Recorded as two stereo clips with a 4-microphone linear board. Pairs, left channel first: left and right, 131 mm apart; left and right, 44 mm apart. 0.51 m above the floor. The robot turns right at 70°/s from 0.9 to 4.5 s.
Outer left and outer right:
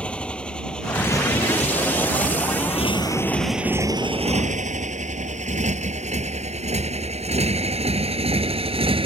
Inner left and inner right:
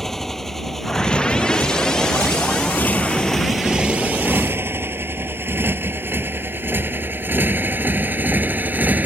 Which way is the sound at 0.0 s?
10° left (ahead or behind).